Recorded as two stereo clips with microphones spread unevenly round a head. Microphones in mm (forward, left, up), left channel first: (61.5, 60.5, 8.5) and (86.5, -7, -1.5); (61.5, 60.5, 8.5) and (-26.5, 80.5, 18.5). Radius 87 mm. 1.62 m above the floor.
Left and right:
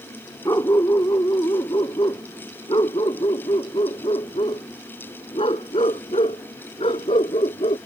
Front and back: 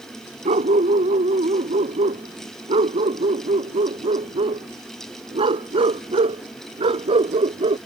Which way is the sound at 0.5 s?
175° left.